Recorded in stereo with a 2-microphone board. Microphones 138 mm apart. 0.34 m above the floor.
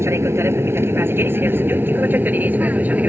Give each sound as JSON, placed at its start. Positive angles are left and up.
{"t": 0.0, "sound": "an aircraft", "side_deg": -20}